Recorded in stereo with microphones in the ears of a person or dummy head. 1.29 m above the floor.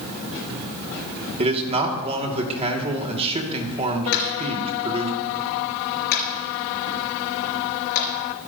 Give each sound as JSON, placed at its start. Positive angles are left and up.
{"t": 1.4, "sound": "a man speaking", "side_deg": -30, "distance_m": 2.5}
{"t": 4.1, "sound": "tapping", "side_deg": 70, "distance_m": 5.5}